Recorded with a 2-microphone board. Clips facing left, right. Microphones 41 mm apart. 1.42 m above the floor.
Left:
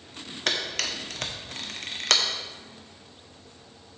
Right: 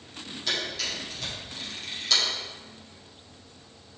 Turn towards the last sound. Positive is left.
turn(degrees=65)  # may be behind; listen again after turning